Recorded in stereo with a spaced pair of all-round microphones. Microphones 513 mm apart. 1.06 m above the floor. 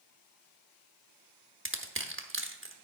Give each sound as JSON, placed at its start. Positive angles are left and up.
{"t": 1.6, "sound": "crushing", "side_deg": -25, "distance_m": 1.0}